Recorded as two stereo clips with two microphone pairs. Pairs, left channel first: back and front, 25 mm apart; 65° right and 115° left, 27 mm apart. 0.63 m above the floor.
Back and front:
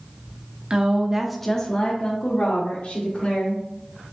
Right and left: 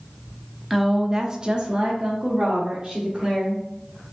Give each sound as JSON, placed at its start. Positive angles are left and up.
{"t": 0.7, "sound": "a woman speaking", "azimuth_deg": 35, "distance_m": 0.9}